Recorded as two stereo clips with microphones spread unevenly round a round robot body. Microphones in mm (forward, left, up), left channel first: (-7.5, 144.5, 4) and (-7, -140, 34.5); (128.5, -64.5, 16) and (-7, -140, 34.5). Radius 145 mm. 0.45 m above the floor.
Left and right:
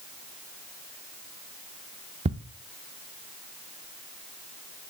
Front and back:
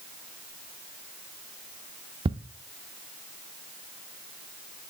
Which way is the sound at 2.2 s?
145° right.